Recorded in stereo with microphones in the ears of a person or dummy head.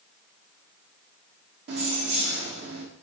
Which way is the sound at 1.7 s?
65° right (ahead or behind).